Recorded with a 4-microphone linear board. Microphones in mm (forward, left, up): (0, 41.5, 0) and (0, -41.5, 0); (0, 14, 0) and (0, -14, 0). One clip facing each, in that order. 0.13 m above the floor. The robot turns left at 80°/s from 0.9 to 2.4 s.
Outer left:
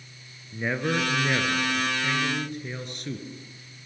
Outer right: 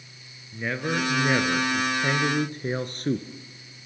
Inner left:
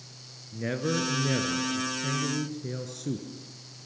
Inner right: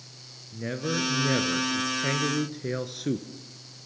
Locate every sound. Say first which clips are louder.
0.5 s a man speaking: outer left 1 dB, inner left 1 dB; 10° left, 1.4 m; by 3.3 s 110° right, 1.4 m